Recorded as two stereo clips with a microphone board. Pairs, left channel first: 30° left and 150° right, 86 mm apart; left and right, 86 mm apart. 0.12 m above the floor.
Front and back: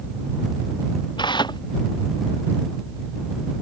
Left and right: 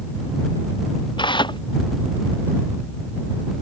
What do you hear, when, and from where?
1.2 s tearing paper: 60° left